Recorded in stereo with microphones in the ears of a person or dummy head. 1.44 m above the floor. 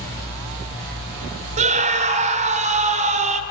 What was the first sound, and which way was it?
A scream, 40° right (ahead or behind).